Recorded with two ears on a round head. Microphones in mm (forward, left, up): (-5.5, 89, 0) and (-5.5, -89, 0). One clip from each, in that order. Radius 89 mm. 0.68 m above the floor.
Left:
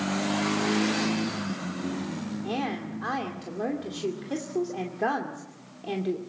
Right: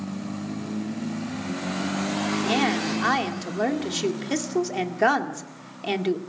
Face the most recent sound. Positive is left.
turn(degrees=-60)  # may be behind; listen again after turning